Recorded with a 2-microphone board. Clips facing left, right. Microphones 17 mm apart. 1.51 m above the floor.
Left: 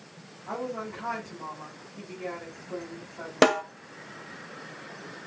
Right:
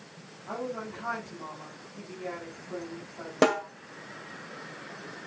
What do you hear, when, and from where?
0.5 s a woman speaking: 30° left (ahead or behind), 8 m
3.4 s a snare drum: 35° left (ahead or behind), 2 m